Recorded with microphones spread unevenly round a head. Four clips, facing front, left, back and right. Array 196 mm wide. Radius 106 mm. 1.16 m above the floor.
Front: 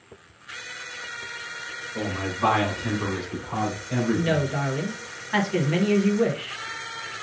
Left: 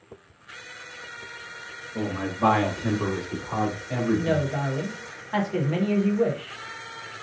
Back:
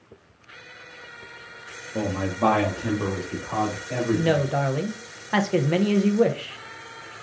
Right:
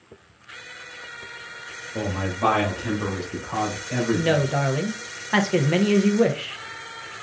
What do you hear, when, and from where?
1.9 s a man speaking: 170° right, 1.5 m; by 4.4 s 115° left, 3 m
4.1 s a woman speaking: 125° right, 0.8 m